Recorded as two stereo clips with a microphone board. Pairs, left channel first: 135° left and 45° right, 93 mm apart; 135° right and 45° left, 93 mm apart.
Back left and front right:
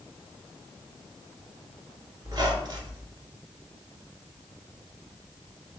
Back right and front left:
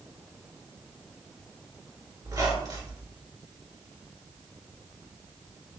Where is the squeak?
Straight ahead, 1.3 m.